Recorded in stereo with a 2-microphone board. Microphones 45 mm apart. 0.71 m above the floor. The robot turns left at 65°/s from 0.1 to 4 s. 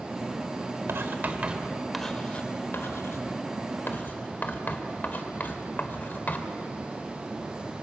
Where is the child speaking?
No child speaking in this recording.